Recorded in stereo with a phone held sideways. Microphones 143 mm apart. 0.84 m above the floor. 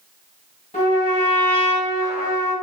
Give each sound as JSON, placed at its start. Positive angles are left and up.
{"t": 0.7, "sound": "a trumpet", "side_deg": 50, "distance_m": 1.9}